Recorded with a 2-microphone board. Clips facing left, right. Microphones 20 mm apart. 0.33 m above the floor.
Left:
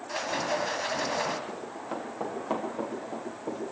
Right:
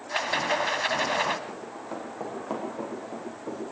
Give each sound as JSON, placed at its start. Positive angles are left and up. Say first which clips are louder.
{"t": 0.1, "sound": "a rattle", "louder": "right 4 dB", "side_deg": -40, "distance_m": 1.7}
{"t": 1.5, "sound": "running footsteps", "louder": "left 1 dB", "side_deg": 20, "distance_m": 6.5}